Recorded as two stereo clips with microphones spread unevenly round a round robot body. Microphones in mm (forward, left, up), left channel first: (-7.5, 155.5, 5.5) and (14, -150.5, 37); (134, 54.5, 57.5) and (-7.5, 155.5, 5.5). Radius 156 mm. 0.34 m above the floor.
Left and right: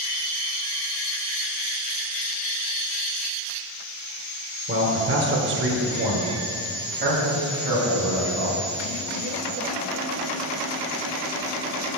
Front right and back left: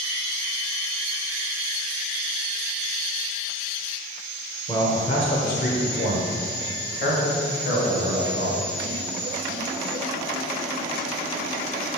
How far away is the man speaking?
About 1.3 m.